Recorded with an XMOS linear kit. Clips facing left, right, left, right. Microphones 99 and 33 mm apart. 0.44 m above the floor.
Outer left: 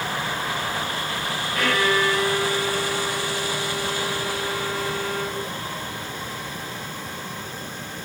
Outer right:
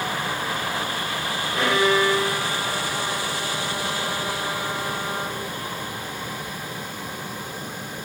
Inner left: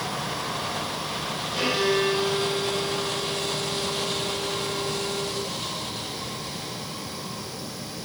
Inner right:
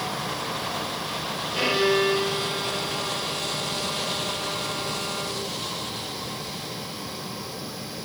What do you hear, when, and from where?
1.6 s a violin: 20° right (ahead or behind), 2 m